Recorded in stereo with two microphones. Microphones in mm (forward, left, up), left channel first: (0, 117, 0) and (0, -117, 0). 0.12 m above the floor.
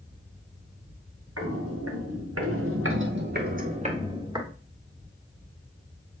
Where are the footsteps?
75° right (ahead or behind), 3 m; by 4.5 s 15° right (ahead or behind), 3 m.